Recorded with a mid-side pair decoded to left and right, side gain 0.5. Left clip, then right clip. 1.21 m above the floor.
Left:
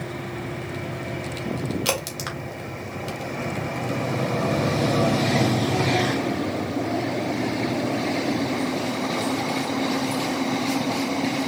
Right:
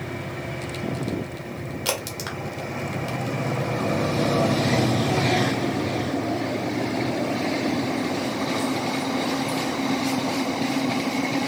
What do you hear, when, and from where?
1.9 s a crack: 10° left, 2.0 m